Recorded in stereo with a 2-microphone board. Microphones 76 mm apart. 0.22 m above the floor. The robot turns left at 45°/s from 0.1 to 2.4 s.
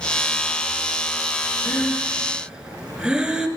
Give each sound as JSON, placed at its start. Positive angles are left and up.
{"t": 1.6, "sound": "breathing", "side_deg": 25, "distance_m": 1.3}